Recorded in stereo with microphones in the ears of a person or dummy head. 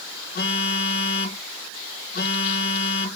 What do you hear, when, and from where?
0.3 s a phone buzzing: 45° left (ahead or behind), 1.9 m